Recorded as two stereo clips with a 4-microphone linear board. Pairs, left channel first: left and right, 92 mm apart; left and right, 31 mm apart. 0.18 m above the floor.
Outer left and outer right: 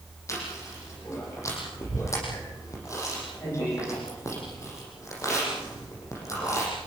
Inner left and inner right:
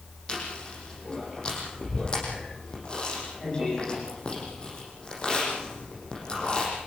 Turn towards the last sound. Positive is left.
turn(degrees=35)  # may be behind; listen again after turning